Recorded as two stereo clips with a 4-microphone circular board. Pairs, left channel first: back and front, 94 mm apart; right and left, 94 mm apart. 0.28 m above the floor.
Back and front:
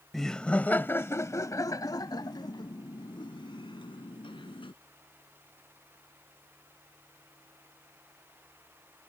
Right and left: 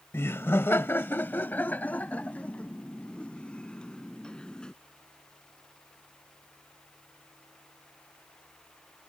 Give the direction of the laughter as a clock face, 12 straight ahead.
3 o'clock.